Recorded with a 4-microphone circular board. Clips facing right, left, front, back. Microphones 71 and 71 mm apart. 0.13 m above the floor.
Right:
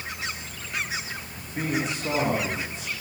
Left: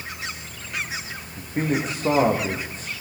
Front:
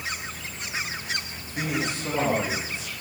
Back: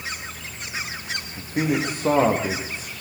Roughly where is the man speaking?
Behind left.